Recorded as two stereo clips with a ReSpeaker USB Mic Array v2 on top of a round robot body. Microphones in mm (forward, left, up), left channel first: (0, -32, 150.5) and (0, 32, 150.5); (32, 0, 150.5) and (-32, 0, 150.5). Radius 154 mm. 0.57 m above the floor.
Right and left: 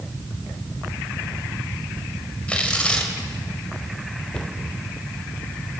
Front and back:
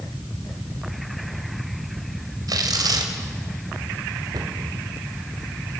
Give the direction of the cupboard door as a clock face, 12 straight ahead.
6 o'clock.